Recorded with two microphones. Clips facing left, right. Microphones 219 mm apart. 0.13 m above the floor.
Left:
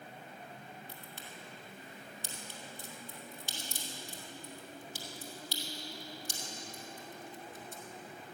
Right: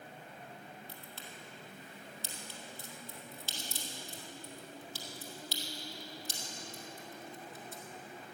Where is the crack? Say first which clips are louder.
Left 1 dB; 15° left (ahead or behind), 2.5 m.